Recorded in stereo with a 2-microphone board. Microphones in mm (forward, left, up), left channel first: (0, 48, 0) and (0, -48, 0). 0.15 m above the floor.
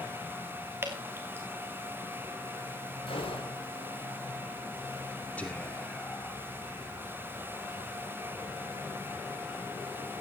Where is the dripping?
25° right (ahead or behind), 3 m.